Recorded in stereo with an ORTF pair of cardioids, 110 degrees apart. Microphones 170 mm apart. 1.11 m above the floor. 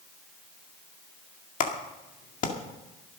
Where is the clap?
50° left, 2.0 m.